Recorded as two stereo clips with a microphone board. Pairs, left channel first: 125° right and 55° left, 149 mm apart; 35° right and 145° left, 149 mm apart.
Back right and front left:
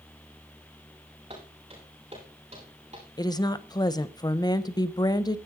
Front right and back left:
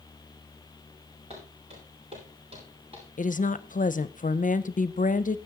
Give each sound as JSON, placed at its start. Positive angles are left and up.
{"t": 1.3, "sound": "footsteps", "azimuth_deg": 105, "distance_m": 8.5}
{"t": 3.2, "sound": "a woman speaking", "azimuth_deg": -60, "distance_m": 0.7}